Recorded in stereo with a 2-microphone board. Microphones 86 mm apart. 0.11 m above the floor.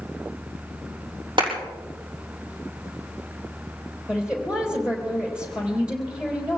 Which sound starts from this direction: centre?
A woman speaking, at 4.1 s.